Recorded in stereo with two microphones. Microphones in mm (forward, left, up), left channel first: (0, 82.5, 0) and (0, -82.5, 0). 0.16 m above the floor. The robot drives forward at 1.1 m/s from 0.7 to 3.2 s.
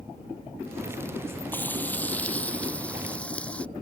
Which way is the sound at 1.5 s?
10° left (ahead or behind).